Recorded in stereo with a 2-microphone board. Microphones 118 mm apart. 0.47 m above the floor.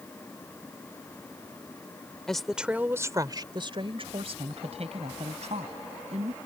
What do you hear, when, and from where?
2.3 s a woman speaking: 5° left (ahead or behind); by 6.4 s 75° right (ahead or behind)